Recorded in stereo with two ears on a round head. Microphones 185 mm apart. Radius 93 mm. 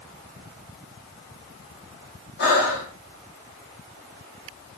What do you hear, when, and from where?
2.4 s breathing: 50° left (ahead or behind), 5.5 m